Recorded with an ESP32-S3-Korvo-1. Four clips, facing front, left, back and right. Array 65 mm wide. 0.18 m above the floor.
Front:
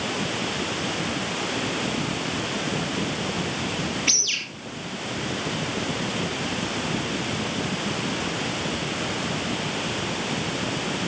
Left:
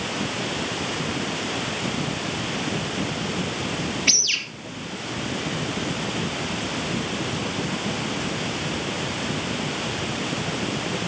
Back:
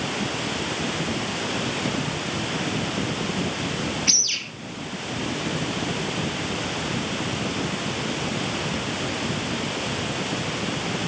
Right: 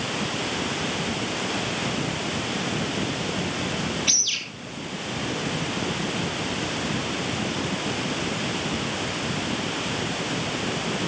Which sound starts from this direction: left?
A bird, at 4.1 s.